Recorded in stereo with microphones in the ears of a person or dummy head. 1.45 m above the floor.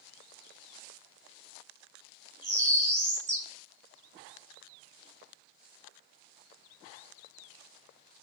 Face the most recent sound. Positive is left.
turn(degrees=-15)  # may be behind; listen again after turning